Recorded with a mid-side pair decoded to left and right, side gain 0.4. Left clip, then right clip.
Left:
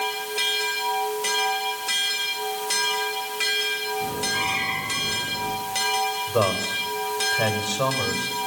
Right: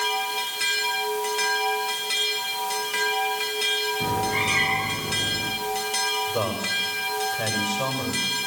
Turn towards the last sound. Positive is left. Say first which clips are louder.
# left 3 dB
turn(degrees=40)